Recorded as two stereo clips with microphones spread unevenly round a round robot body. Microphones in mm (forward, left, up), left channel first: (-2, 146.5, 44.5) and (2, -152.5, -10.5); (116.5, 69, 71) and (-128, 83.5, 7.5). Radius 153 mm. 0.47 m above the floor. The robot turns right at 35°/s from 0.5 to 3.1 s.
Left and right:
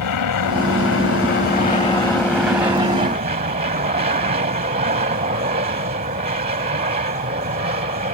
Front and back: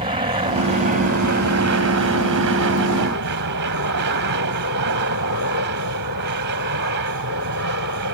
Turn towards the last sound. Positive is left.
turn(degrees=-155)